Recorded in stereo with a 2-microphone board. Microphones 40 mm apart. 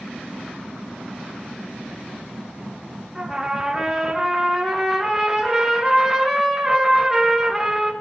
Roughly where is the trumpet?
Centre.